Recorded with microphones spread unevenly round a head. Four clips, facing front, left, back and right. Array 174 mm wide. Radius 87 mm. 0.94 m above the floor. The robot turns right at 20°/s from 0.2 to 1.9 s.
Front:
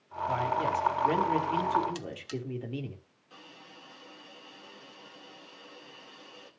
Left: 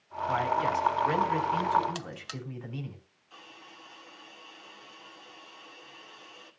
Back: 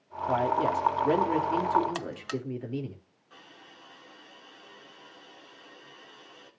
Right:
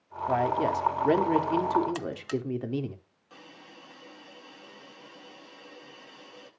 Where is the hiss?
70° right, 9 m.